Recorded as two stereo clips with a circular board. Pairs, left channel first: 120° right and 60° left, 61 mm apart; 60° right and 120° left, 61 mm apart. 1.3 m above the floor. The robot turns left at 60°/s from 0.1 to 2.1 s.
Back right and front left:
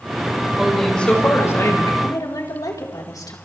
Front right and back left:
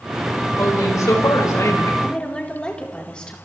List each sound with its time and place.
0.6 s a woman speaking: 20° right, 5.5 m; by 1.9 s 100° right, 5.5 m
2.0 s a woman speaking: 130° right, 4 m; by 3.4 s 135° right, 4 m